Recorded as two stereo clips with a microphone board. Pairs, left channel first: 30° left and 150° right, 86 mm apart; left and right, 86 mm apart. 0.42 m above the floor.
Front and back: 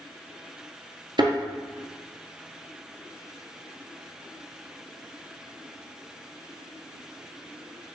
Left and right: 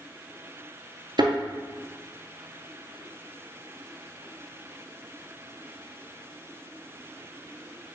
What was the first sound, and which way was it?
A thud, 120° right.